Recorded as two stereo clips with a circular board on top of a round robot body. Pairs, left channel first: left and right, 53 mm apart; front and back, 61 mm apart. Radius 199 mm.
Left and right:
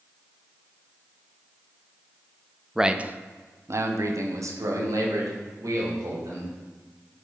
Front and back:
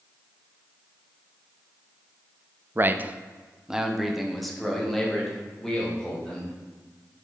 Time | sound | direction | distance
2.8 | a man speaking | 165° right | 0.7 m